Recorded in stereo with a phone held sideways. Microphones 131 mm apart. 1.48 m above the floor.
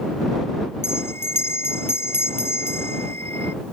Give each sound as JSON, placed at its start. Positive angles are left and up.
{"t": 0.8, "sound": "a bell", "side_deg": 20}